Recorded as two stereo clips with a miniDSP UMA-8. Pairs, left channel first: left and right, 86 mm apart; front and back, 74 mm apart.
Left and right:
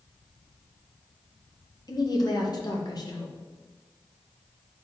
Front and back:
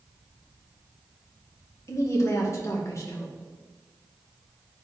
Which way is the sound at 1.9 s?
50° left.